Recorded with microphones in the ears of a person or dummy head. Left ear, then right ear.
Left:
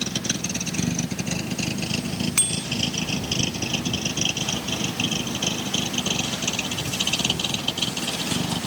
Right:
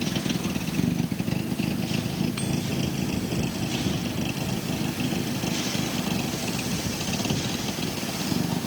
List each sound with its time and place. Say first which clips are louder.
0.0 s a vehicle: left 2 dB; 60° left (ahead or behind); by 8.7 s 55° left (ahead or behind)
2.4 s a bicycle bell: left 5 dB; 75° left (ahead or behind)